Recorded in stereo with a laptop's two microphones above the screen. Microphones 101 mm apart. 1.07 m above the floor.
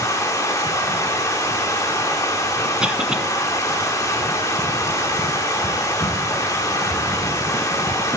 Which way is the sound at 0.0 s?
30° left (ahead or behind).